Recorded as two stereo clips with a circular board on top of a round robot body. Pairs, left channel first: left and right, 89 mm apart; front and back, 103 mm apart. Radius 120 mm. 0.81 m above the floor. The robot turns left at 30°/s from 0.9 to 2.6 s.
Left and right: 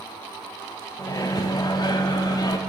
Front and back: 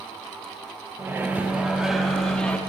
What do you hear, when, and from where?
1.0 s a microwave: 120° left, 0.8 m; by 2.6 s 75° left, 0.8 m